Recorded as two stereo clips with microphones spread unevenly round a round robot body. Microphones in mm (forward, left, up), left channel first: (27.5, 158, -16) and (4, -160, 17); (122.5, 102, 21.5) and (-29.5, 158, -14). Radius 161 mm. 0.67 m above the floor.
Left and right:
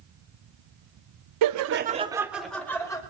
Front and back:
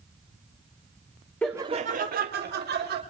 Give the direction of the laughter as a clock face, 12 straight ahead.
4 o'clock.